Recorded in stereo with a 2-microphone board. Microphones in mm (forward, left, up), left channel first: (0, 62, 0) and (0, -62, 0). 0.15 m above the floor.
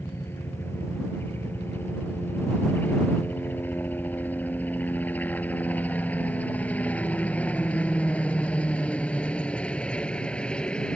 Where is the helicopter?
20° left (ahead or behind); by 11.0 s 10° left (ahead or behind).